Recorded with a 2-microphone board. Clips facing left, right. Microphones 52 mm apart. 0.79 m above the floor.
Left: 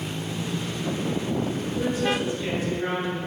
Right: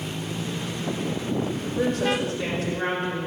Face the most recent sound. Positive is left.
turn(degrees=-75)  # may be behind; listen again after turning